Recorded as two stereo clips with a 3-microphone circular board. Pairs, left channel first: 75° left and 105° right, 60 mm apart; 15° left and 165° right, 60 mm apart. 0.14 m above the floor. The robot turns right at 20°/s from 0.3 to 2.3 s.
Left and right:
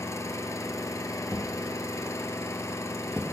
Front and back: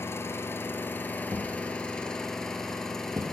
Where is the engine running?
55° left, 1.0 m; by 3.3 s 95° left, 1.0 m.